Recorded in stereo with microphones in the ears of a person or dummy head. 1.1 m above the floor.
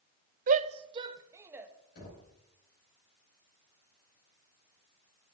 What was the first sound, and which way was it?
A shout, 45° right (ahead or behind).